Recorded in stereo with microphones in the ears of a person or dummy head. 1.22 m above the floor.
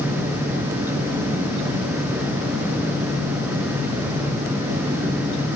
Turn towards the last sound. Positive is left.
No sound to turn to.